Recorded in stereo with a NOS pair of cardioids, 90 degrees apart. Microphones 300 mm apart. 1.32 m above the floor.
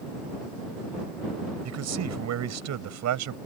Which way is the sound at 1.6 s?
60° right.